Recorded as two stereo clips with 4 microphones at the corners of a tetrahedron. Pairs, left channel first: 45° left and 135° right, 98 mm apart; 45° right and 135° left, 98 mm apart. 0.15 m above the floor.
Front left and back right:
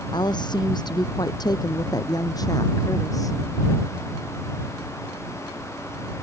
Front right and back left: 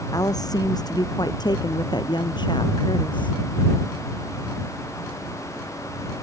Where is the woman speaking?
5° left; by 3.4 s 10° right.